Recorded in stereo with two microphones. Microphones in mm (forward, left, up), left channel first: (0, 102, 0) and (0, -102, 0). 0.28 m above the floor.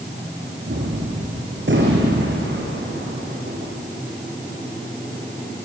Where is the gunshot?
70° right (ahead or behind), 4 m.